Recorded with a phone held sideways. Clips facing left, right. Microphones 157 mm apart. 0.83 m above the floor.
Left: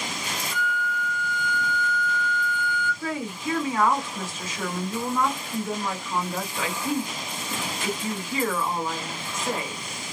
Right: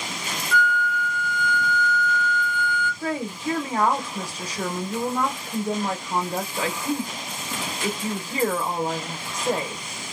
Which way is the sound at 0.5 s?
80° right.